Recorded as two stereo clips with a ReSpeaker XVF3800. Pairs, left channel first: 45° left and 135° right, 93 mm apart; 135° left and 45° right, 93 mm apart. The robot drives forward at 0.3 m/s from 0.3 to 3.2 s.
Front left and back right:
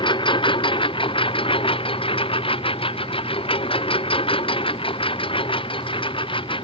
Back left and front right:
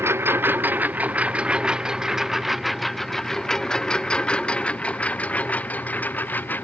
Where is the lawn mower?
15° left; by 6.6 s 65° left.